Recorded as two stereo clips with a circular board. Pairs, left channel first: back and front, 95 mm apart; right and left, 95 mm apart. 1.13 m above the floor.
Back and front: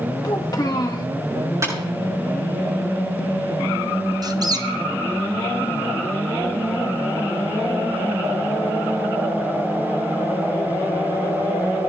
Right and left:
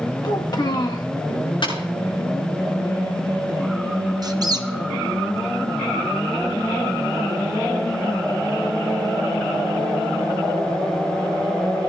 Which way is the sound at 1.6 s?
60° right.